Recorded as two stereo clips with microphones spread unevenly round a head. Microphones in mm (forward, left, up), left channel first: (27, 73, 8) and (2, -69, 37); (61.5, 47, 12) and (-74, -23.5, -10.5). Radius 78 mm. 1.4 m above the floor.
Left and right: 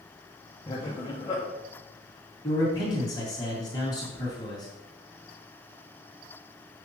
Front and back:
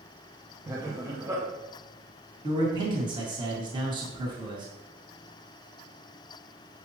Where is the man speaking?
145° left, 2 m.